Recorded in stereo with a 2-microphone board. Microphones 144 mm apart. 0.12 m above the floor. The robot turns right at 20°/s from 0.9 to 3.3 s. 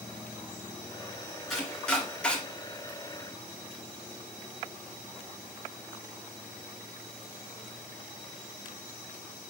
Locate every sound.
1.5 s chopping: centre (ahead or behind), 1.7 m; by 2.4 s 10° left (ahead or behind), 1.7 m